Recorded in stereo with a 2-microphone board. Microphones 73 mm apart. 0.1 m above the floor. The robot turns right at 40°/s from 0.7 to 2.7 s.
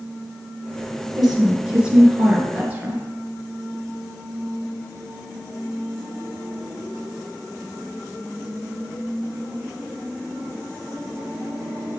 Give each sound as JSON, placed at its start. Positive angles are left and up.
{"t": 1.1, "sound": "a woman speaking", "side_deg": 0, "distance_m": 1.7}